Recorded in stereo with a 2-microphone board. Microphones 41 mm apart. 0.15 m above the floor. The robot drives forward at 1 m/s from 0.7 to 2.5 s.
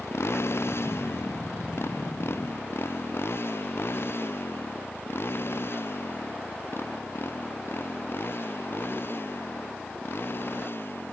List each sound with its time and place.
0.0 s a motorcycle: 75° left (ahead or behind); by 11.1 s 55° left (ahead or behind)